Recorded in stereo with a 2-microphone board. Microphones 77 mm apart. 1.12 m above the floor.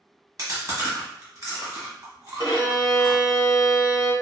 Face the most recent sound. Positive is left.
turn(degrees=65)  # may be behind; listen again after turning